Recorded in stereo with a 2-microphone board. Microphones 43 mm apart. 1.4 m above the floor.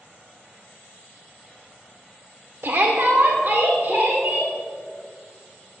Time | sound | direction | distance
2.6 | a shout | 90° right | 0.7 m